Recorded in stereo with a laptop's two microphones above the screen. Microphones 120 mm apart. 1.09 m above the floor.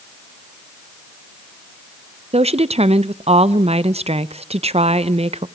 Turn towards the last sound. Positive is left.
turn(degrees=-60)  # may be behind; listen again after turning